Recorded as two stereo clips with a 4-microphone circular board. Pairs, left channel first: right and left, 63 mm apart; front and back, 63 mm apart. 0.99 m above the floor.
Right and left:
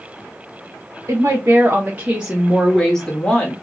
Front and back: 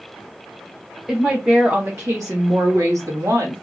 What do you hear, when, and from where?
1.1 s a woman speaking: 105° left, 0.8 m; by 3.5 s 160° right, 1.3 m